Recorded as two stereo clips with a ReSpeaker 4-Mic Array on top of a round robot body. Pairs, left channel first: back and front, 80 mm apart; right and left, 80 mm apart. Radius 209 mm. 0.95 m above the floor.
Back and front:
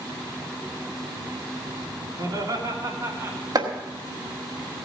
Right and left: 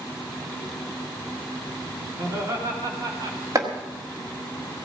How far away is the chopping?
About 1.6 m.